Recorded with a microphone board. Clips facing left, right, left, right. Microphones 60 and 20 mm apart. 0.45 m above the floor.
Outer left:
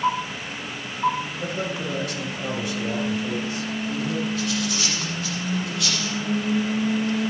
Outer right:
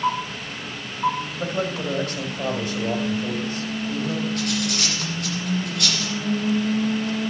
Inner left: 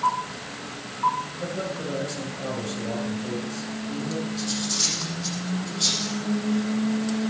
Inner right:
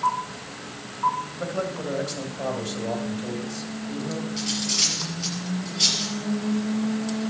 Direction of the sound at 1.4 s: 45° right (ahead or behind).